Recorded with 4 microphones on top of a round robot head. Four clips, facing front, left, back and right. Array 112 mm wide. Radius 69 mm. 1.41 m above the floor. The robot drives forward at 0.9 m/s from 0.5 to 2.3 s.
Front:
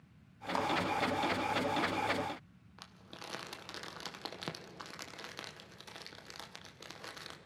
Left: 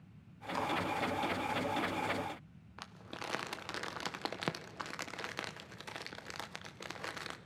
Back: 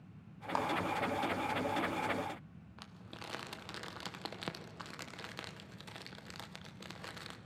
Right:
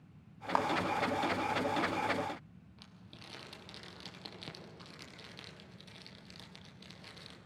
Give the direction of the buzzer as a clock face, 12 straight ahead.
No buzzer in this recording.